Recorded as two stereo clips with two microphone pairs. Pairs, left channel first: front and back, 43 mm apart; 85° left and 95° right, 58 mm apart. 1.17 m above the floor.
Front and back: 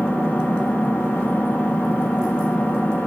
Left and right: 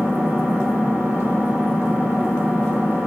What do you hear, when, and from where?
0.0 s an engine running: 45° right, 6 m